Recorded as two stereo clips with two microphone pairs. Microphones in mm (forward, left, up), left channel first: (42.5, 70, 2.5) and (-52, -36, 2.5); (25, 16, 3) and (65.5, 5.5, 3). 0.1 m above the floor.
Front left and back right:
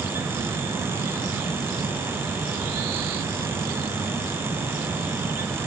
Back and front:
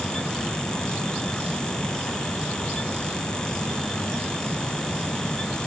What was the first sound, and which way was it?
Only background noise.